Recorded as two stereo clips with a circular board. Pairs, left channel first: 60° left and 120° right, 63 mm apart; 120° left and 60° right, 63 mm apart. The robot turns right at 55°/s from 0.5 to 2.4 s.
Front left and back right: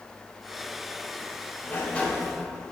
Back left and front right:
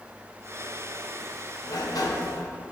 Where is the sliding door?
110° left, 1.1 m; by 2.5 s 155° left, 1.1 m.